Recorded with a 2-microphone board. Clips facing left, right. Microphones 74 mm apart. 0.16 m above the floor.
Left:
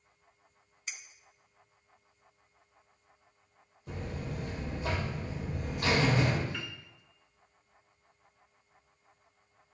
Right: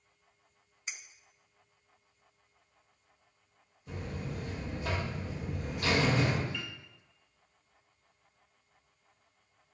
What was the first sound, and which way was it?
A clink, 20° right (ahead or behind).